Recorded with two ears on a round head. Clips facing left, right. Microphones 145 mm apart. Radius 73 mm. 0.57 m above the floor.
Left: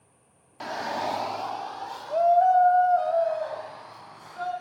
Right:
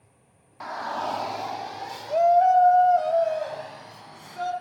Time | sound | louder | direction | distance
0.6 | a shout | left 1 dB | 35° left (ahead or behind) | 0.8 m